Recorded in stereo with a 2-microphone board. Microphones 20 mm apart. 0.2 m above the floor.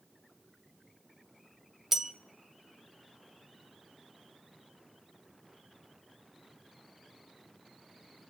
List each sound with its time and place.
1.9 s a bell: 15° right (ahead or behind), 0.6 m